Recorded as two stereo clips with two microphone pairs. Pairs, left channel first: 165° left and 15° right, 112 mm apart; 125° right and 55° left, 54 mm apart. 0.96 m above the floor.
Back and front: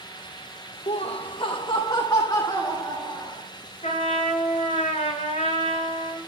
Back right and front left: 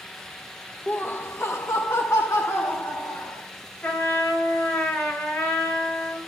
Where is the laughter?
170° left, 0.5 m; by 3.4 s 135° right, 2.5 m.